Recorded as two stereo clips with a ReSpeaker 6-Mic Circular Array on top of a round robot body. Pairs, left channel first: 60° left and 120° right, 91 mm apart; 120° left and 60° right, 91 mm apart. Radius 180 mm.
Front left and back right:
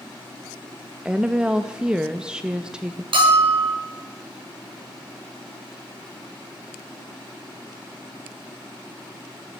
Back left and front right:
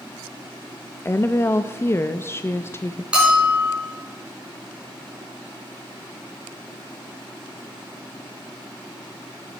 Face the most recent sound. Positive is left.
turn(degrees=-140)